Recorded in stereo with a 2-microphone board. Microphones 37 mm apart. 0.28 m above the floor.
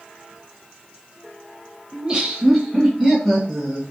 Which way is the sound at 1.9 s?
20° right (ahead or behind).